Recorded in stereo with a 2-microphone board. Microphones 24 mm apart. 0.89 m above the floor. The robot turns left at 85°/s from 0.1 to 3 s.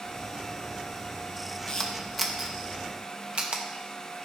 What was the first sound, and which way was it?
A camera shutter, 30° left (ahead or behind).